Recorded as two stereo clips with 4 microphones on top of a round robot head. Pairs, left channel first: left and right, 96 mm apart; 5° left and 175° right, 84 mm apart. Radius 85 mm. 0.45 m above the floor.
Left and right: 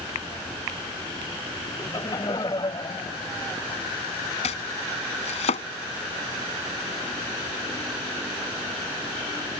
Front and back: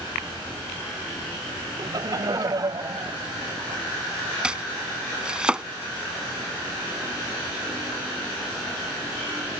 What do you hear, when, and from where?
1.8 s laughter: 150° left; by 3.8 s 140° left
4.4 s chopping: 110° left